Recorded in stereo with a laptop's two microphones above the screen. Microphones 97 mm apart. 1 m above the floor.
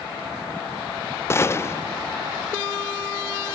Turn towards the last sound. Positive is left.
turn(degrees=30)  # may be behind; listen again after turning